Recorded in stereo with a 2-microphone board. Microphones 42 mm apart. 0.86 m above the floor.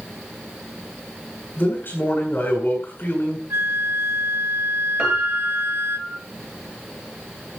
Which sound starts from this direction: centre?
A piano, at 5.0 s.